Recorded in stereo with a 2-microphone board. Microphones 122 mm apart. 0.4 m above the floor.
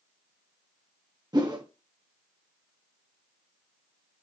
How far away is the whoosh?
About 1.0 m.